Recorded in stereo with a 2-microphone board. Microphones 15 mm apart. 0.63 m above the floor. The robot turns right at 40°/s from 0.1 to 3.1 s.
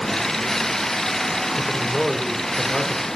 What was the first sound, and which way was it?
A man speaking, 30° right.